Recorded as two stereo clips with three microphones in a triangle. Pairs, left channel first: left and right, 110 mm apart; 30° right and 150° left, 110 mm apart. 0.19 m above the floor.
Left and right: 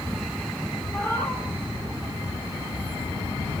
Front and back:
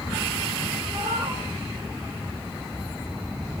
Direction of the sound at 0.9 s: 160° left.